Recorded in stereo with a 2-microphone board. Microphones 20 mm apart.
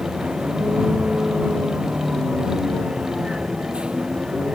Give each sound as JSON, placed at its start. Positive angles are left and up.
{"t": 0.0, "sound": "a vehicle", "side_deg": -70}